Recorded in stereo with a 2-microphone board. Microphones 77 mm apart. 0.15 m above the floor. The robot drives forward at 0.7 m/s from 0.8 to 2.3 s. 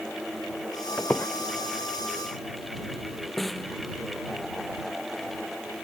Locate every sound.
1.0 s a squeak: 20° left (ahead or behind); by 1.3 s 25° left (ahead or behind)
3.4 s a snare drum: 5° left (ahead or behind)